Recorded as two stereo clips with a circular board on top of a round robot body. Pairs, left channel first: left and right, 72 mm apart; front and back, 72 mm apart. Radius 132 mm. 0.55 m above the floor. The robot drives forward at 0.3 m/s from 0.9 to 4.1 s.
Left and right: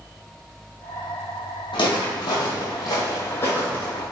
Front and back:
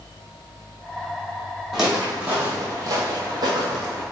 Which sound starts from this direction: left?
Footsteps, at 1.7 s.